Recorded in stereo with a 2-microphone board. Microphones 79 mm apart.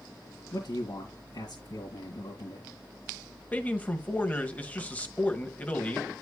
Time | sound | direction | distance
0.5 | a man speaking | 55° left (ahead or behind) | 2 m
3.5 | a man speaking | 20° left (ahead or behind) | 1.4 m